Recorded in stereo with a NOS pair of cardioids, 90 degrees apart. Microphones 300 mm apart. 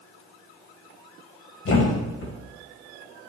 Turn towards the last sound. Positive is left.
turn(degrees=50)